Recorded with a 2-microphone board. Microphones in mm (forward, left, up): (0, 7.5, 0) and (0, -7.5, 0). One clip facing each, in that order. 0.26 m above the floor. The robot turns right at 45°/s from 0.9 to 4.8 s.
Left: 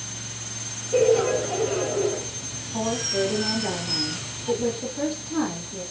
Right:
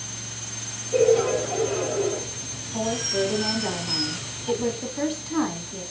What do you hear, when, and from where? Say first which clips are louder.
0.9 s laughter: even; 15° left (ahead or behind), 1.0 m; by 2.2 s centre (ahead or behind), 1.0 m
2.7 s a woman speaking: even; 165° left, 2 m; by 5.8 s 100° right, 2 m